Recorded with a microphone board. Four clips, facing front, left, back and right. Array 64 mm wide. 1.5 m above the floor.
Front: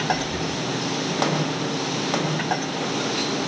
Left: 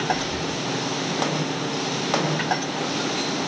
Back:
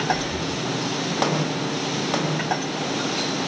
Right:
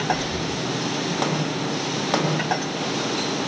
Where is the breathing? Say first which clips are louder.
Right 1 dB, even; 155° right, 5.5 m.